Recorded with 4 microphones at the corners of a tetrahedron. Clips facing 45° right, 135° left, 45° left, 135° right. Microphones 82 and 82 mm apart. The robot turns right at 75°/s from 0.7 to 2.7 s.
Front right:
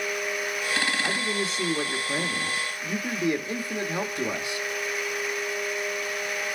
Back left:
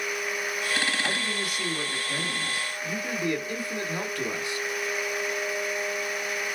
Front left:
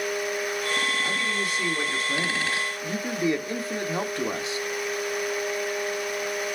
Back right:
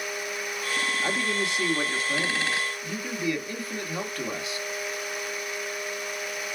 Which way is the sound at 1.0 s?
120° right.